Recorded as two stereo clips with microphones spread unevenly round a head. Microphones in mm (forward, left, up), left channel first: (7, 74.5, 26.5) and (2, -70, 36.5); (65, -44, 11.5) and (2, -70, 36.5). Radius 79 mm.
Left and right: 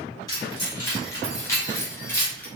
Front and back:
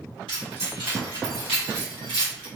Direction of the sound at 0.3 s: 160° left.